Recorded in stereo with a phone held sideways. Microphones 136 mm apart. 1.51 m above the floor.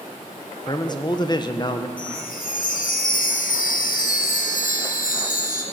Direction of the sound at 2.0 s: 80° left.